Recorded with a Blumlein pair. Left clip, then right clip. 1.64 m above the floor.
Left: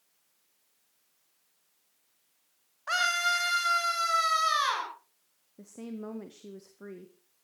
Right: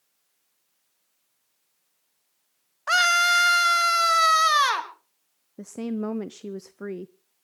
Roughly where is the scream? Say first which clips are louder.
Right 8 dB; ahead right.